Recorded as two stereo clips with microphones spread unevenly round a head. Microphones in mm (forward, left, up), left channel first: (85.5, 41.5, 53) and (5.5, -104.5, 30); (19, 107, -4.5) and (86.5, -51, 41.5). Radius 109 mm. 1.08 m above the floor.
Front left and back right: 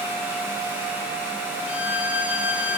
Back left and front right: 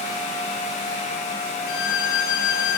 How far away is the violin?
About 0.7 m.